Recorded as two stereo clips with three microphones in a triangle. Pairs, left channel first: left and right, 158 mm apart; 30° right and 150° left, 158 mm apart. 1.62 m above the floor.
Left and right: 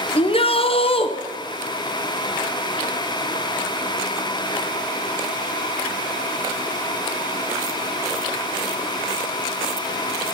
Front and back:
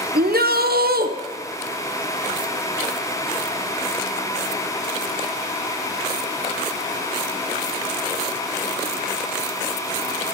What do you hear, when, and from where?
0.1 s a shout: 140° left, 0.9 m